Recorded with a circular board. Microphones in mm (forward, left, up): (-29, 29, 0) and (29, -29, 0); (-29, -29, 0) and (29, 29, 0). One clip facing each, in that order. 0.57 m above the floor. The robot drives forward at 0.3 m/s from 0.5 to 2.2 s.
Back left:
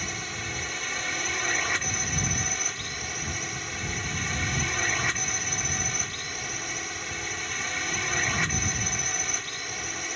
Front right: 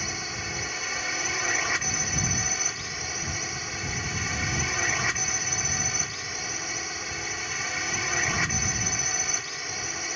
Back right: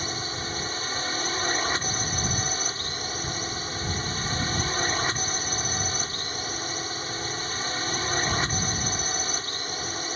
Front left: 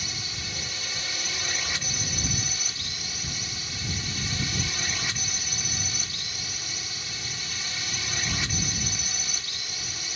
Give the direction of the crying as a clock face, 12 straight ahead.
No crying in this recording.